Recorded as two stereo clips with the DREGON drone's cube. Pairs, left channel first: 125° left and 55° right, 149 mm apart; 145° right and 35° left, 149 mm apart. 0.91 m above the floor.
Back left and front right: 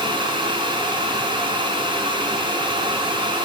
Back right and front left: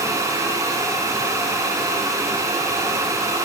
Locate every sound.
Only background noise.